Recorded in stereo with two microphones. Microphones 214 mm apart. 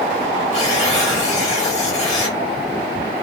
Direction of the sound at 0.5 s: 30° left (ahead or behind).